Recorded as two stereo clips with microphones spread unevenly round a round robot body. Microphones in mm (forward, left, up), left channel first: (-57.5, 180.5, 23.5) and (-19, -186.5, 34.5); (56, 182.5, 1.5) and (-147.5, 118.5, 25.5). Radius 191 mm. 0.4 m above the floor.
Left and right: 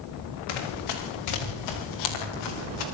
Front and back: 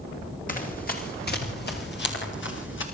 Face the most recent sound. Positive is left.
turn(degrees=40)